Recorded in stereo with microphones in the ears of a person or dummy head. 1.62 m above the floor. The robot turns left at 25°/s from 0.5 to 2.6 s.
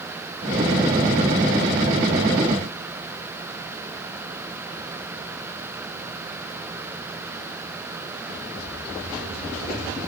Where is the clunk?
No clunk in this recording.